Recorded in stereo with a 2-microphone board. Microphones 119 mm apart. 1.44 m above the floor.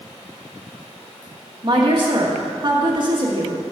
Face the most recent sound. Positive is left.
turn(degrees=-40)  # may be behind; listen again after turning